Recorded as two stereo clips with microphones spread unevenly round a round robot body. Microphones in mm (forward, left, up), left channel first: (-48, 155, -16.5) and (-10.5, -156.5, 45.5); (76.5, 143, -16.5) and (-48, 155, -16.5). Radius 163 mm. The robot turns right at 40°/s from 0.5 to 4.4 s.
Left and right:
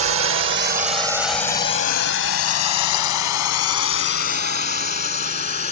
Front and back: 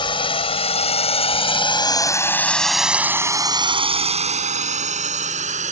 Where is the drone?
40° right; by 5.7 s 160° left.